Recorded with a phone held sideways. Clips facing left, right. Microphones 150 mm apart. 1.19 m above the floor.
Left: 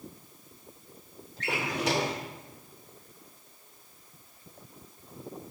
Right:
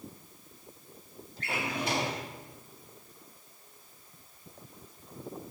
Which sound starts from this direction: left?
A drawer, at 1.4 s.